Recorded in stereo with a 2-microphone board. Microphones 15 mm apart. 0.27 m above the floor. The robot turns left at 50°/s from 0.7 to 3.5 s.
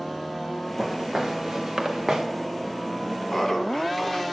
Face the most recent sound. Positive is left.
turn(degrees=40)  # may be behind; listen again after turning